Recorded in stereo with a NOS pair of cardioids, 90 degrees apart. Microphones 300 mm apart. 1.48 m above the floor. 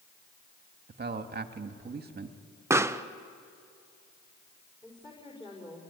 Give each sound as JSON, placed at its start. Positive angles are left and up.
{"t": 0.9, "sound": "a man speaking", "azimuth_deg": -30, "distance_m": 2.0}
{"t": 2.7, "sound": "a pop", "azimuth_deg": -10, "distance_m": 0.9}
{"t": 4.8, "sound": "a woman speaking", "azimuth_deg": 15, "distance_m": 5.0}